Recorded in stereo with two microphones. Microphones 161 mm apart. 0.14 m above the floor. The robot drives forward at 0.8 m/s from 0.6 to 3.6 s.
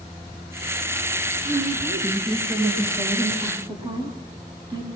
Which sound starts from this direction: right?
A woman speaking, at 1.4 s.